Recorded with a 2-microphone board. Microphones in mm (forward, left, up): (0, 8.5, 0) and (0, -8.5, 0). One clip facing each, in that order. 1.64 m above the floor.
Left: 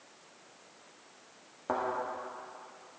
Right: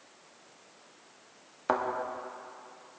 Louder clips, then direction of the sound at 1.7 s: Right 4 dB; 45° right (ahead or behind).